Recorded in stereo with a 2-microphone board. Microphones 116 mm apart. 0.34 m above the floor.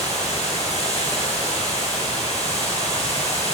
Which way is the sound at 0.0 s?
85° left.